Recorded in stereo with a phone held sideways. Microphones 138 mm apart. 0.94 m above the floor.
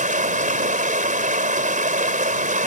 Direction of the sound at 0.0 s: 70° right (ahead or behind).